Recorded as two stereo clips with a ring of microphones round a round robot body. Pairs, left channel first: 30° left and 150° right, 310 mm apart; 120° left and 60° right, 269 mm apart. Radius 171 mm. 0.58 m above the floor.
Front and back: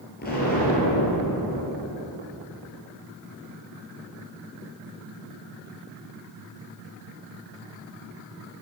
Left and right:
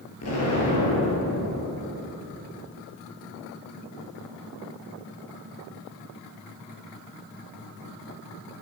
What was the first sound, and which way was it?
An explosion, 90° left.